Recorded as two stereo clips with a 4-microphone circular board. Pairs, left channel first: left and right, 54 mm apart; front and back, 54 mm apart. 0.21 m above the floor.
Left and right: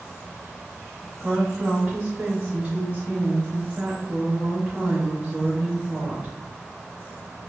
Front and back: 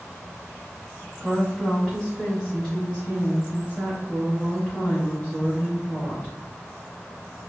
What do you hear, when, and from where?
1.2 s a woman speaking: 55° right, 1.1 m